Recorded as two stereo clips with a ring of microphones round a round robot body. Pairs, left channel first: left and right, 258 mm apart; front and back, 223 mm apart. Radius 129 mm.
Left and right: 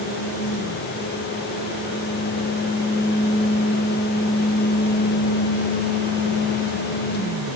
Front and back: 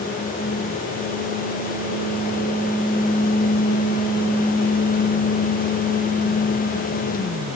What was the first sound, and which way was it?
Only background noise.